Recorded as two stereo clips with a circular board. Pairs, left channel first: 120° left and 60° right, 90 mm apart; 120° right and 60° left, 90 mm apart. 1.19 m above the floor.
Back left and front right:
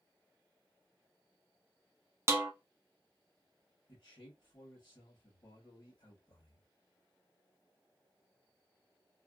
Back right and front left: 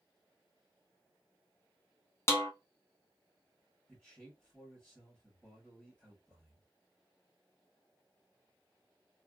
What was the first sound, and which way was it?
A snare drum, 85° right.